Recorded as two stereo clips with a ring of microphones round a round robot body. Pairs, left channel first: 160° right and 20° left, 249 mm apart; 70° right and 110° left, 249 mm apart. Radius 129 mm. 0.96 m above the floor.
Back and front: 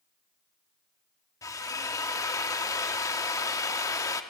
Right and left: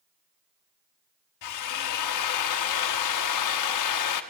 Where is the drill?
80° right, 1.2 m.